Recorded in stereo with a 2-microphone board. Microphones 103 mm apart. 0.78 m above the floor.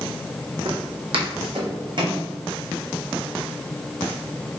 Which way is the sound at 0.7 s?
55° right (ahead or behind).